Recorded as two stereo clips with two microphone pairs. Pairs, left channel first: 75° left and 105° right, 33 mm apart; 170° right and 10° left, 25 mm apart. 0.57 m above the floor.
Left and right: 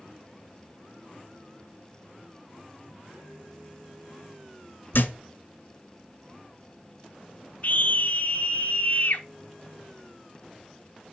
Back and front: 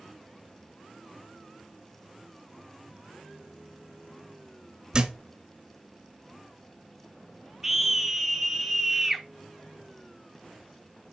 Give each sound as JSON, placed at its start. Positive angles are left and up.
{"t": 4.9, "sound": "a thud", "azimuth_deg": 75, "distance_m": 1.1}
{"t": 7.6, "sound": "a scream", "azimuth_deg": 90, "distance_m": 1.0}